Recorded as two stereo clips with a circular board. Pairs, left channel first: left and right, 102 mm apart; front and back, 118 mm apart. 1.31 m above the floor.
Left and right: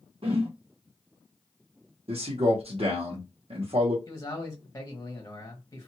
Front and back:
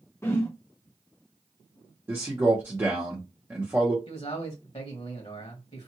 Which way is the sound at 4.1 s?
30° left.